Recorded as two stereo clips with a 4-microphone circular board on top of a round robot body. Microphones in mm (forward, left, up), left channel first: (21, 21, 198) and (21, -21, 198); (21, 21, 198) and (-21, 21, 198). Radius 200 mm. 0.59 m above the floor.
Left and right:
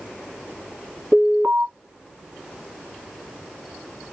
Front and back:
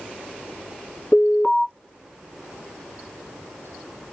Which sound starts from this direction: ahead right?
An alarm, at 1.1 s.